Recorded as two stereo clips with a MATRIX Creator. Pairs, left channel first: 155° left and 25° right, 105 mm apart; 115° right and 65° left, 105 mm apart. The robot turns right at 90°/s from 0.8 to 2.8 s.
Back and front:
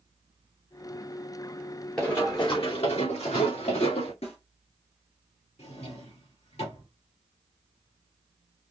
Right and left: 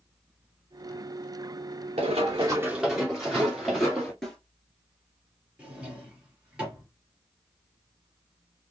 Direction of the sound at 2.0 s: 75° left.